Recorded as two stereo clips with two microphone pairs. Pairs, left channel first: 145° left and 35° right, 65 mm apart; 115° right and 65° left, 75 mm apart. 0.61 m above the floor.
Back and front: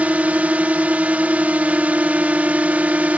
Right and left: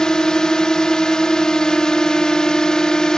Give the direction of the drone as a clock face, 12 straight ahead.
2 o'clock.